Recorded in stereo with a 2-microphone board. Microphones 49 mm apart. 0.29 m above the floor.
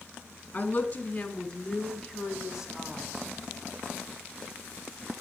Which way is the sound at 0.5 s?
35° left (ahead or behind).